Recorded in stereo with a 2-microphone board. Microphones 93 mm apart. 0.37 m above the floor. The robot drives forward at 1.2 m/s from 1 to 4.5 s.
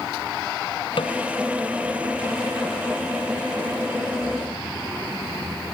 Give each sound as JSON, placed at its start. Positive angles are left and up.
{"t": 1.0, "sound": "a snare drum", "side_deg": 65}